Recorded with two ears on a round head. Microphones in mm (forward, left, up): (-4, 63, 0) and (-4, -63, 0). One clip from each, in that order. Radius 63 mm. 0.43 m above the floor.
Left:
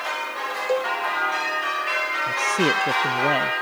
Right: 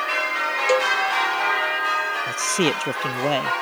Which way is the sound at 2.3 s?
35° right (ahead or behind).